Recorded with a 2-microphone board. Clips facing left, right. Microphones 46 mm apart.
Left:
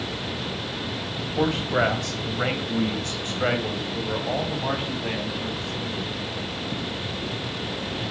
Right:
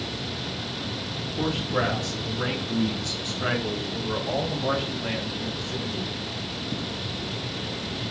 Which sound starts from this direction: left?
A man speaking, at 1.4 s.